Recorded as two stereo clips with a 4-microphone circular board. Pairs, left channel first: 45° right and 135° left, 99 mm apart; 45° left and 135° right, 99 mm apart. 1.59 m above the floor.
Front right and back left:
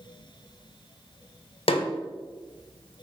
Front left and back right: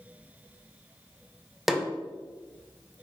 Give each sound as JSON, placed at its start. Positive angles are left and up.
{"t": 1.7, "sound": "a snare drum", "azimuth_deg": -50, "distance_m": 0.6}